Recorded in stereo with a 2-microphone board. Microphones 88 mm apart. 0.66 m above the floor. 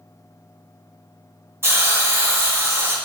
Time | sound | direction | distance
1.6 | a hiss | 25° right (ahead or behind) | 0.7 m